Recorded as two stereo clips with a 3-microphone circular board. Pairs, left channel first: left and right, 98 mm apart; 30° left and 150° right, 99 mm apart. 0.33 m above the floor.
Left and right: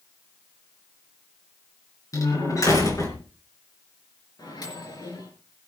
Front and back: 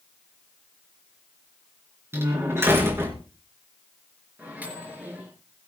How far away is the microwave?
About 4 m.